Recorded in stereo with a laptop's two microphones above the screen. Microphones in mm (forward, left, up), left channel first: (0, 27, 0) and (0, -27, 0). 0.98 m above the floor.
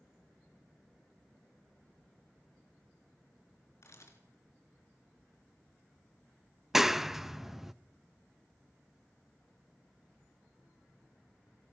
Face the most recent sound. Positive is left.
turn(degrees=-5)  # may be behind; listen again after turning